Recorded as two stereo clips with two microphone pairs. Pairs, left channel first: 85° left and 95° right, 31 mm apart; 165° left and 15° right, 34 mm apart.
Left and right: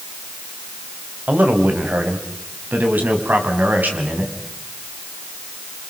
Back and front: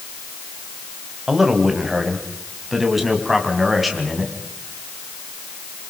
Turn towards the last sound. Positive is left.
turn(degrees=-100)